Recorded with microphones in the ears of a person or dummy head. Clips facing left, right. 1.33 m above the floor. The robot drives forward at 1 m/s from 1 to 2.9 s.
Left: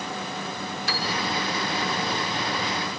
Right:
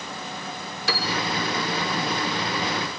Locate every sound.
0.9 s a piano: 70° right (ahead or behind), 0.8 m; by 1.1 s 75° right (ahead or behind), 0.8 m